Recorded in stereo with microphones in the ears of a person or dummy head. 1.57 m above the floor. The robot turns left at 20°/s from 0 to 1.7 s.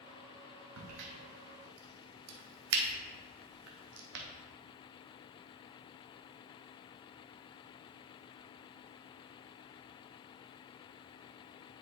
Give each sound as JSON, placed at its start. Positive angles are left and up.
{"t": 0.8, "sound": "a crack", "side_deg": -75, "distance_m": 0.8}